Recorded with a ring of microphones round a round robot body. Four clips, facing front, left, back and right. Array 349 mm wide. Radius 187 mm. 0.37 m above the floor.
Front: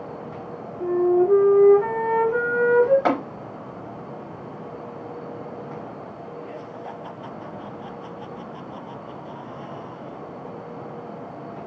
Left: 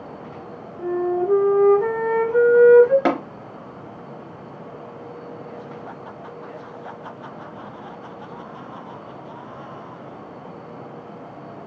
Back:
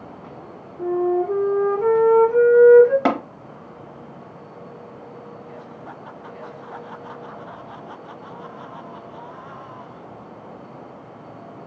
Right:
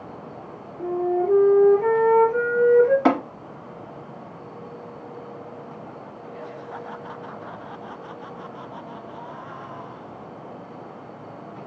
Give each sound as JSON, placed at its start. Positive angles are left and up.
{"t": 0.8, "sound": "a flute", "azimuth_deg": 70, "distance_m": 1.2}
{"t": 3.0, "sound": "tapping", "azimuth_deg": 135, "distance_m": 0.8}